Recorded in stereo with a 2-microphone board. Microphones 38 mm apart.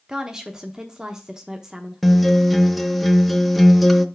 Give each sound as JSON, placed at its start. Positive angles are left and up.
{"t": 0.1, "sound": "a woman speaking", "side_deg": -20, "distance_m": 0.8}
{"t": 2.0, "sound": "a guitar", "side_deg": 0, "distance_m": 0.5}